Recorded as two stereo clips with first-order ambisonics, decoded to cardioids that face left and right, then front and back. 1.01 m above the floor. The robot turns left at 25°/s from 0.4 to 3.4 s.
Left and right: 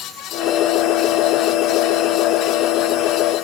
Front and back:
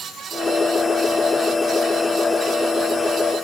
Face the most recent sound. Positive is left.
No sound to turn to.